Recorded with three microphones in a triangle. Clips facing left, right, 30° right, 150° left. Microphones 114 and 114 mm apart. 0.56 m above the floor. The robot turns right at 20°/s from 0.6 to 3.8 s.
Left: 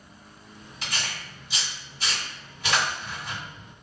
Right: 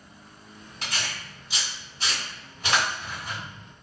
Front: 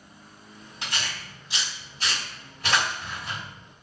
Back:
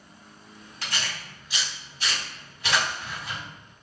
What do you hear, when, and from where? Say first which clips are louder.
0.8 s tearing paper: even, even; 95° right, 1.5 m; by 3.4 s 40° right, 1.5 m